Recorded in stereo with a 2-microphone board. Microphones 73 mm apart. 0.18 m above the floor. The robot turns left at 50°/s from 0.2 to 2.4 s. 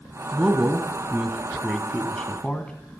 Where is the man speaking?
20° right (ahead or behind), 1.2 m; by 2.7 s 15° left (ahead or behind), 1.2 m.